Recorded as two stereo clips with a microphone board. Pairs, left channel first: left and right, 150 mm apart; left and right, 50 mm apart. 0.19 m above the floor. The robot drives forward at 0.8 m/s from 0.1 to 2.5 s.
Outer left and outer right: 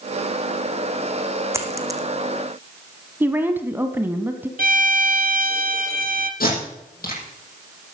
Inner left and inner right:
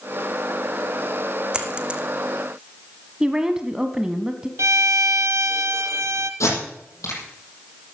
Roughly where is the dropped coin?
Centre.